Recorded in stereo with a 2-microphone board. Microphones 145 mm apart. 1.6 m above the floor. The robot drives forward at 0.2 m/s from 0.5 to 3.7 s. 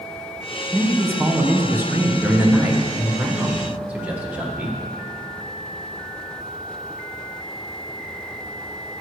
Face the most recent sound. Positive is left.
turn(degrees=-10)  # may be behind; listen again after turning